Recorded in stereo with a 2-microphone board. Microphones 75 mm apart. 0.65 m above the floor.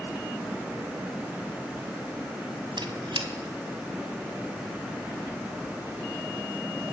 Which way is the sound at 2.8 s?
85° right.